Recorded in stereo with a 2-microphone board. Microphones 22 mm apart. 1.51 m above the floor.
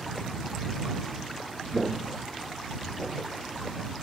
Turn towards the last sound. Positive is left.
turn(degrees=10)  # may be behind; listen again after turning